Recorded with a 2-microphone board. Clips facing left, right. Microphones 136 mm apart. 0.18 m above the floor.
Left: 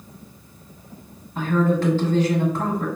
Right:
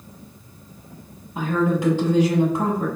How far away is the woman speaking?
About 1.1 m.